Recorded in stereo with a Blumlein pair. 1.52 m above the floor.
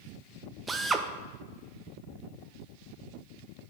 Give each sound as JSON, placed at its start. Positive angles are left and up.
{"t": 0.7, "sound": "a drill", "azimuth_deg": -15, "distance_m": 0.7}